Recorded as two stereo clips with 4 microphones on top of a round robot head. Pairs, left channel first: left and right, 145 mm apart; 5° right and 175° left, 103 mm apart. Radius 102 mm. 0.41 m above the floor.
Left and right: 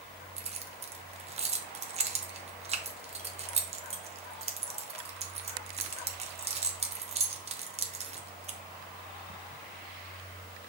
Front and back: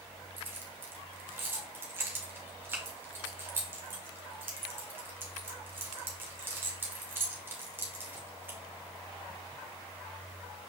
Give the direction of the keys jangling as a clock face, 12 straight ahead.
4 o'clock.